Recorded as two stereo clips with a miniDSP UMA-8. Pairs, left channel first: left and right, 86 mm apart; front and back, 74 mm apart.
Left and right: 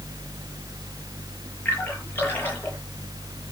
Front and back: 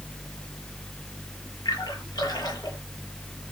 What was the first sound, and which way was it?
A splash, 20° left.